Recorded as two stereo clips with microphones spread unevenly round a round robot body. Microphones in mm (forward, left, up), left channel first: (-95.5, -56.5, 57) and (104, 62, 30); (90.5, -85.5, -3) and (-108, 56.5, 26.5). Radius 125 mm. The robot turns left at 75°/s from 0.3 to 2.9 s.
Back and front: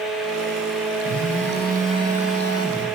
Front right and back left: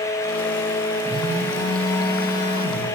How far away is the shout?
No shout in this recording.